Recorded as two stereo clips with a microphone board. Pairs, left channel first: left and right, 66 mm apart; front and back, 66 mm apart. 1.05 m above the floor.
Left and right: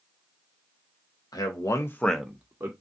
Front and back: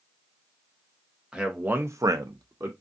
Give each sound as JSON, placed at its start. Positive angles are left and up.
{"t": 1.3, "sound": "a man speaking", "azimuth_deg": 105, "distance_m": 0.9}